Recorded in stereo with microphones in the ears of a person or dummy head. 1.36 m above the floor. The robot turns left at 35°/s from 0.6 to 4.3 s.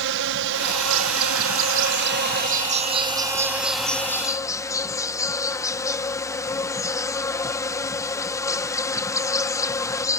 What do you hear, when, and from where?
0.0 s an insect: 70° right; by 10.2 s 160° left